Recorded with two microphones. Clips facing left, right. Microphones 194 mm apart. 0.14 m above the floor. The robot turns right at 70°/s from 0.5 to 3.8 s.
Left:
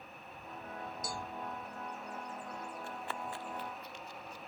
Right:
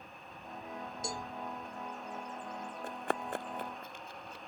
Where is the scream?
I don't hear a scream.